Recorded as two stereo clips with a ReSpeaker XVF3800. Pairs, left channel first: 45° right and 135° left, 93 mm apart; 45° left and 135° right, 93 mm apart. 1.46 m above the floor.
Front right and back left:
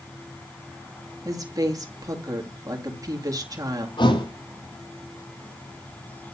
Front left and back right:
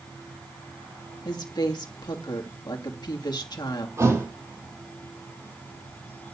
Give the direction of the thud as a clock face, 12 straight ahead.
3 o'clock.